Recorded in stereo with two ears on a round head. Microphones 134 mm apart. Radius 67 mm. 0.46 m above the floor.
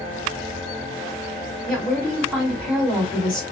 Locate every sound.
1.7 s a woman speaking: centre (ahead or behind), 1.9 m